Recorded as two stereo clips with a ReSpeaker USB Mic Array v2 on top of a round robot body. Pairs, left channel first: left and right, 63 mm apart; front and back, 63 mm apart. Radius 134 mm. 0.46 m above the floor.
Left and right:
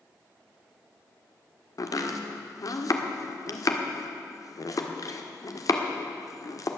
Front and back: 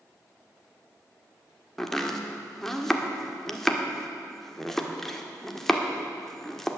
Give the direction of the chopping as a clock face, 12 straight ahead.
9 o'clock.